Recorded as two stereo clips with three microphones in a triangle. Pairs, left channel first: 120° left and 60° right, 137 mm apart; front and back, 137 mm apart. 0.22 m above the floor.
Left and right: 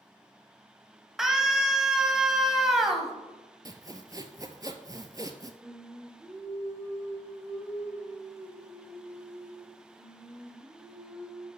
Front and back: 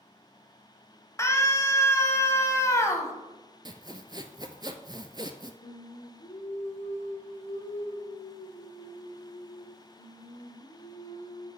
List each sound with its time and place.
1.2 s a scream: 25° left, 1.0 m
3.6 s sawing: 120° right, 0.6 m
5.6 s singing: 30° left, 2 m